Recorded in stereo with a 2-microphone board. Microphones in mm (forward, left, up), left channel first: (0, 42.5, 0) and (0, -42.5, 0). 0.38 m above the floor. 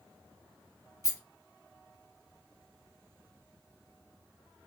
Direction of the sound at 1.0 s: 35° left (ahead or behind).